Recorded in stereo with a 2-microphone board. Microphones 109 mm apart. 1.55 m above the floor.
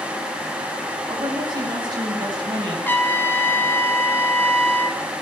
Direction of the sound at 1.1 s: 45° right (ahead or behind).